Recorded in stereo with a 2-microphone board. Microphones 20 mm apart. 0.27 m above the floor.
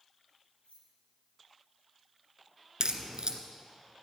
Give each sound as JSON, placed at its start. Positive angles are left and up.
{"t": 0.6, "sound": "keys jangling", "side_deg": 70, "distance_m": 8.0}
{"t": 2.8, "sound": "a crack", "side_deg": -50, "distance_m": 1.3}